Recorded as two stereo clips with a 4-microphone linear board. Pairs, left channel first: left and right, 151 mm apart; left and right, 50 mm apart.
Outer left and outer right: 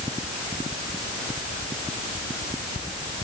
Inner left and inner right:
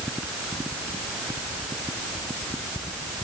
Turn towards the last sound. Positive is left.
No sound to turn to.